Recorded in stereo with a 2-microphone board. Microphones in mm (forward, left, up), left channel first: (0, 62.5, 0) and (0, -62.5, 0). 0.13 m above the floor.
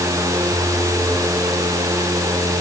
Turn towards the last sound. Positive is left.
No sound to turn to.